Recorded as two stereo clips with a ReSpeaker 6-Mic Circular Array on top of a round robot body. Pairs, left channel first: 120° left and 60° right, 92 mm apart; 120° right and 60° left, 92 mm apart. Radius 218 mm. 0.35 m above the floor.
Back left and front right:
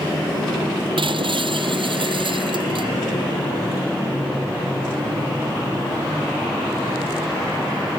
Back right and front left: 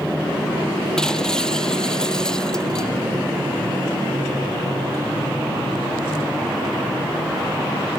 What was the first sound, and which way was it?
Breaking glass, 40° right.